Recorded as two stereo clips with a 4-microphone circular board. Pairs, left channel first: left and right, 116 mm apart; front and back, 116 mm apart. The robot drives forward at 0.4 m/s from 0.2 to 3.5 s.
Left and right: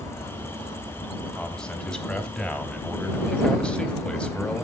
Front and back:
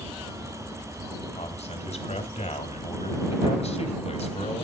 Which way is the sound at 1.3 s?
5° left.